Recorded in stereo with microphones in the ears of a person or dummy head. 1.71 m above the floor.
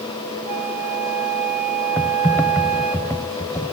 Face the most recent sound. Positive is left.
turn(degrees=10)  # may be behind; listen again after turning